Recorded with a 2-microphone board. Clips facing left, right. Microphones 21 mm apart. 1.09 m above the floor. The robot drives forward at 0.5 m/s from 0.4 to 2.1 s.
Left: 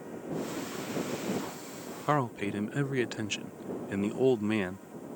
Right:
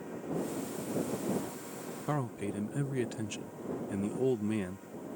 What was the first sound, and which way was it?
A man speaking, 40° left (ahead or behind).